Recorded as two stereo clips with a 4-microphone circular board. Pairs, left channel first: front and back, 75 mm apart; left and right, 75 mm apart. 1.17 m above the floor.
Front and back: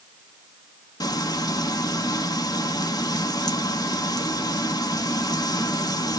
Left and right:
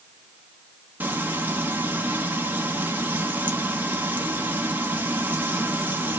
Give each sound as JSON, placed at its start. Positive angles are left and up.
{"t": 1.0, "sound": "frying", "azimuth_deg": -25, "distance_m": 1.5}